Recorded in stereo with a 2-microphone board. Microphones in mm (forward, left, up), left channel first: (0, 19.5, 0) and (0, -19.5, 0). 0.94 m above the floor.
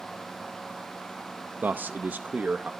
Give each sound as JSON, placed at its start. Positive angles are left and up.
{"t": 1.6, "sound": "a man speaking", "side_deg": -40, "distance_m": 0.5}